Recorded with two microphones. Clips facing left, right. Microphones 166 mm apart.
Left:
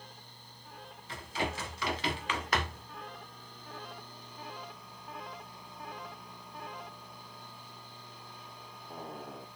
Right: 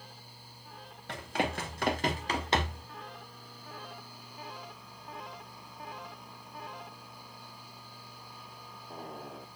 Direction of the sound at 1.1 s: 65° right (ahead or behind).